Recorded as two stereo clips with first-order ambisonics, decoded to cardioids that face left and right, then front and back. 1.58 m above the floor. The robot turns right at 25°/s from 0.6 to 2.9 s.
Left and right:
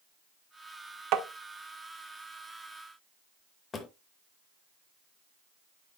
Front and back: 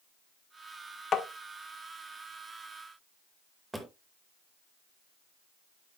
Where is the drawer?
105° left, 0.9 m.